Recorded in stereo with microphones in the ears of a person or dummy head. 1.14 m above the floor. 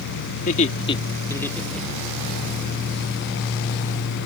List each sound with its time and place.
0.3 s laughter: 45° left (ahead or behind); by 2.2 s 5° right (ahead or behind)